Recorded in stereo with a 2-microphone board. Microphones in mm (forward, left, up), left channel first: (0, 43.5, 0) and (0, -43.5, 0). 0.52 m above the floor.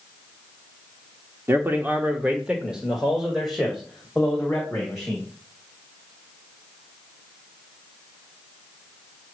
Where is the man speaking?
25° right (ahead or behind), 1.0 m; by 5.3 s 5° left (ahead or behind), 3 m.